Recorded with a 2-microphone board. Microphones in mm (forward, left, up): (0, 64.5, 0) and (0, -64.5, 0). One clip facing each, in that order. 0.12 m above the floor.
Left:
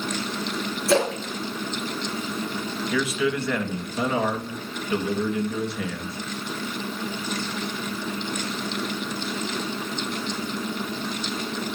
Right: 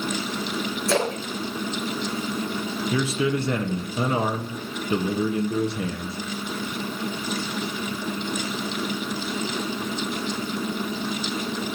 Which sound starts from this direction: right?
A man speaking, at 2.9 s.